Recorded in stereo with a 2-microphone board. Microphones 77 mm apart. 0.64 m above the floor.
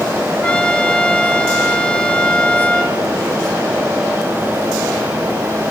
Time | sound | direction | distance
0.4 | a trumpet | 15° left (ahead or behind) | 3.5 m